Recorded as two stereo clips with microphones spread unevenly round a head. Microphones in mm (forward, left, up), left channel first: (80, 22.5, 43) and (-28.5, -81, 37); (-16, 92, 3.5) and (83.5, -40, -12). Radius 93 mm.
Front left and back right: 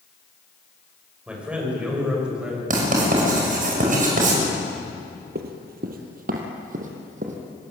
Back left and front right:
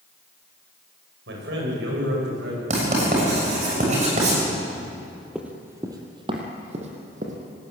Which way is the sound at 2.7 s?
110° right.